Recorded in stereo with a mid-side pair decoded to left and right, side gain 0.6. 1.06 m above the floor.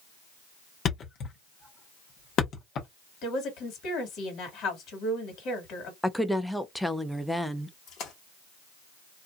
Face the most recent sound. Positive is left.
turn(degrees=60)